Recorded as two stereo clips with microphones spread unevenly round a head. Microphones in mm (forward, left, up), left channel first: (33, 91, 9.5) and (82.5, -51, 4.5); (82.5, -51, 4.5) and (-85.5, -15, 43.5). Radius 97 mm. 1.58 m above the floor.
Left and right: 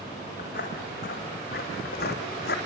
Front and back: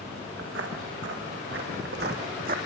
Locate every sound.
0.4 s footsteps: 155° left, 5.5 m; by 2.6 s 135° left, 3.5 m